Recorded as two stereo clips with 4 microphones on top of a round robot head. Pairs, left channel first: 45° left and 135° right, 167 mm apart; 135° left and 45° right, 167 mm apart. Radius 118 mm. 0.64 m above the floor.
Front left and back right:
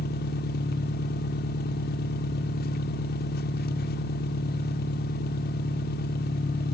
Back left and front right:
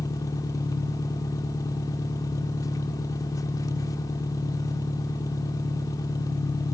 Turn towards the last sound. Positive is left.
turn(degrees=65)